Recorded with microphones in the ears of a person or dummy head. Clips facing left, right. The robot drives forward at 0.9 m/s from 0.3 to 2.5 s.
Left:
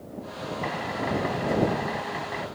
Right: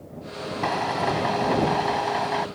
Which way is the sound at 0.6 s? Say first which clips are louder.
Right 6 dB; 75° right (ahead or behind).